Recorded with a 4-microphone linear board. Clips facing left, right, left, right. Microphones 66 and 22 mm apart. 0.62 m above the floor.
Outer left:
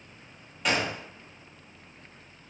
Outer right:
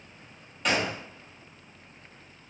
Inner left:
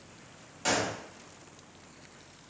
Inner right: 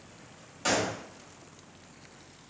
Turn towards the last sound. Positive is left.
turn(degrees=0)  # may be behind; listen again after turning